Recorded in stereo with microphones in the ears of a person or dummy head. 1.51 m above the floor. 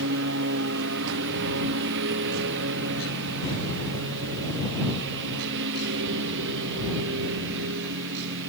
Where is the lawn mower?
65° right (ahead or behind).